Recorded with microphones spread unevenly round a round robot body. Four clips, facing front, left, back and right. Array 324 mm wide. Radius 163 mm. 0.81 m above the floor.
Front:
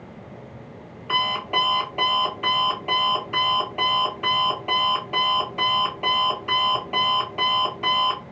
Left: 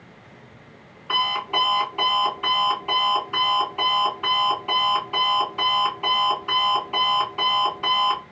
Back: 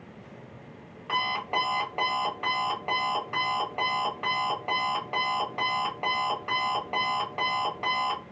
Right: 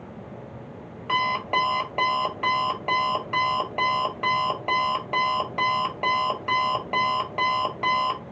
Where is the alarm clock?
75° right, 1.5 m.